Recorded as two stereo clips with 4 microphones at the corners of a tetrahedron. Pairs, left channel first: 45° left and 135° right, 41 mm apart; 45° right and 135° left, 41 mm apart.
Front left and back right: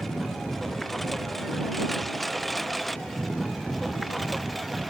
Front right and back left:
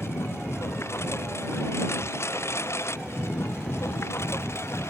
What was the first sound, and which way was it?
A lawn mower, 40° right.